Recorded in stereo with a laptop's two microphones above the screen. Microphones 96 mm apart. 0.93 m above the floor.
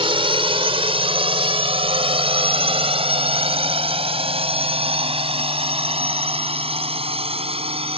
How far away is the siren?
No siren in this recording.